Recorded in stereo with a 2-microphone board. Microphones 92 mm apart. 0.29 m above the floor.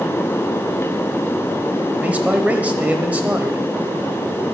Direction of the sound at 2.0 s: 15° right (ahead or behind).